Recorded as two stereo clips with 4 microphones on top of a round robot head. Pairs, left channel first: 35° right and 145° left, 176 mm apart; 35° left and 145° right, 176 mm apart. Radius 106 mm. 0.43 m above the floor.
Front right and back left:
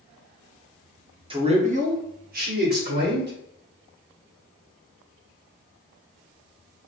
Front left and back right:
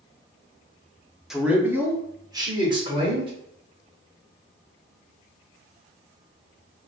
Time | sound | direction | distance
1.3 | a man speaking | 130° left | 0.8 m